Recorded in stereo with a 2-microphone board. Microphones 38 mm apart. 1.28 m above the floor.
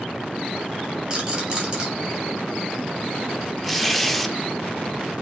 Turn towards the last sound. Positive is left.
turn(degrees=5)  # may be behind; listen again after turning